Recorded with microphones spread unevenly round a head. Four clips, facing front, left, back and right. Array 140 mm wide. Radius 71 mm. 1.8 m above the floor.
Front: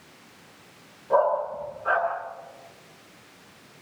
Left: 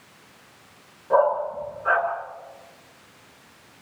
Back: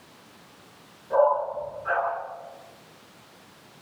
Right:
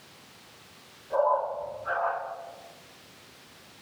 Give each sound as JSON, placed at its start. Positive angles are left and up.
{"t": 1.1, "sound": "a dog barking", "azimuth_deg": 45, "distance_m": 9.0}